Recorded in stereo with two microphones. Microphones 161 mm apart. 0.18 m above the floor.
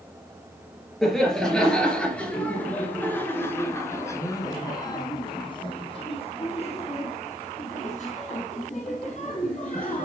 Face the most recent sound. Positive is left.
turn(degrees=45)  # may be behind; listen again after turning